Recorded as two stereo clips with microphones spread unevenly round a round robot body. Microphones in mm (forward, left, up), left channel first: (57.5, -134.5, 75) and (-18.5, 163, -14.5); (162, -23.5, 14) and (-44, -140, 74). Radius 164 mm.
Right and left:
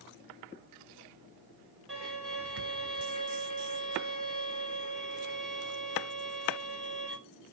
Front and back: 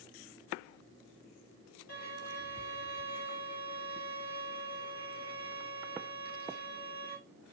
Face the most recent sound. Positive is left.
turn(degrees=20)